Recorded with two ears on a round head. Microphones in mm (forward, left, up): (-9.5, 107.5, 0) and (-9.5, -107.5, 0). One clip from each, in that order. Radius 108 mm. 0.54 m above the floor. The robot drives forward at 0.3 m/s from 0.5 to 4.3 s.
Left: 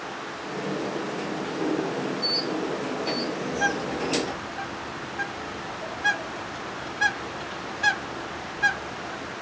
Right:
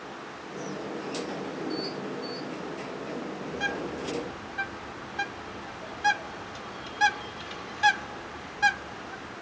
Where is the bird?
25° right (ahead or behind), 1.1 m; by 9.3 s 20° right (ahead or behind), 1.2 m.